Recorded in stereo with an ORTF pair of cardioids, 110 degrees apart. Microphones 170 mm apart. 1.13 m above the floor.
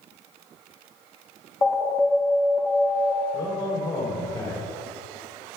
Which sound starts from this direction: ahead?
An alarm, at 1.6 s.